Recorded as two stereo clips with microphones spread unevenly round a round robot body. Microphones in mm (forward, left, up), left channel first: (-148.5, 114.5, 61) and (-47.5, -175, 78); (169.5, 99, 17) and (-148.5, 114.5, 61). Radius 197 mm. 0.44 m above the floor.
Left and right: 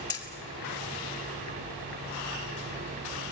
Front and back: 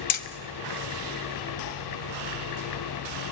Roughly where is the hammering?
Ahead left.